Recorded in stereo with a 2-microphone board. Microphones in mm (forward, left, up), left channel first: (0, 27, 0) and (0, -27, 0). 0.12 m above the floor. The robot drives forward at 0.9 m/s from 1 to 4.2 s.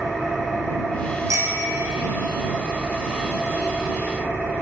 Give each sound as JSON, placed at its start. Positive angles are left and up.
{"t": 0.0, "sound": "an engine running", "side_deg": 5, "distance_m": 7.0}
{"t": 1.3, "sound": "a bicycle bell", "side_deg": -75, "distance_m": 4.0}